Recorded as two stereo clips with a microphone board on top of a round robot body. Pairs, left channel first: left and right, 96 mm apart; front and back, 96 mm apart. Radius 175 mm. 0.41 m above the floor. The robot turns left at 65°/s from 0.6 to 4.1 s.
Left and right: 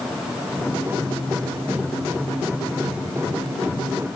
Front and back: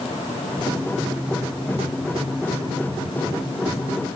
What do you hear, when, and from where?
Only background noise.